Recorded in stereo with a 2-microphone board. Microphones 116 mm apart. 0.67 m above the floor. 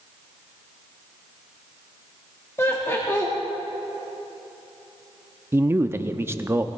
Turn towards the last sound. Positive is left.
turn(degrees=-20)  # may be behind; listen again after turning